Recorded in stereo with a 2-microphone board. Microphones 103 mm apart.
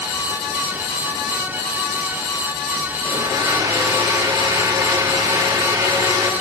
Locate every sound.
3.0 s a blender: 40° right (ahead or behind), 1.3 m